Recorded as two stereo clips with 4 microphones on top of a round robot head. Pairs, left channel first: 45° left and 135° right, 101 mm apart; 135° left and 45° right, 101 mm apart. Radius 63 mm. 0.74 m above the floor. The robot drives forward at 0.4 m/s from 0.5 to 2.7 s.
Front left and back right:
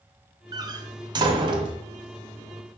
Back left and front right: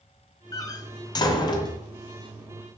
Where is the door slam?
175° right, 0.7 m; by 1.8 s straight behind, 1.1 m.